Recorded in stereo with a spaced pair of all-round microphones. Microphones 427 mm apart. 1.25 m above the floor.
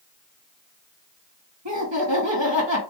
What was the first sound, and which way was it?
Laughter, 80° right.